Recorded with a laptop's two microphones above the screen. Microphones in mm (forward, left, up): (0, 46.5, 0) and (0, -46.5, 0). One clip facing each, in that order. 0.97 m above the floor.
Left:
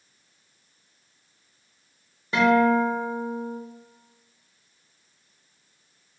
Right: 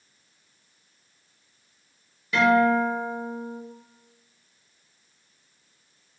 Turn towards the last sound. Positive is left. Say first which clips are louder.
# even
turn(degrees=35)  # may be behind; listen again after turning